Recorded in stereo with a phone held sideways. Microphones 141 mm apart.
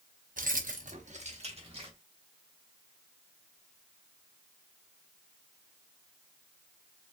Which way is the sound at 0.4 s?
75° right (ahead or behind).